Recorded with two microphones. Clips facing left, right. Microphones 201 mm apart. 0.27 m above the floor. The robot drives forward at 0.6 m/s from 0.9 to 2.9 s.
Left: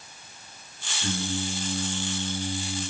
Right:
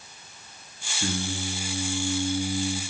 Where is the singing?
55° right (ahead or behind), 6 m; by 2.8 s 65° right (ahead or behind), 5.5 m.